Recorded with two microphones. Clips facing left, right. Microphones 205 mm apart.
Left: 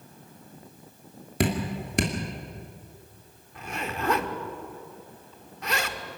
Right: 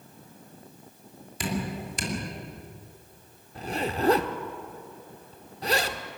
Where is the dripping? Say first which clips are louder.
Left 4 dB; 65° left (ahead or behind), 2.5 m.